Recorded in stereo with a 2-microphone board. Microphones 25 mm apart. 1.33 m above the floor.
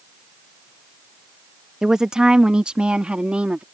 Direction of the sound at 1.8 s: 20° right (ahead or behind).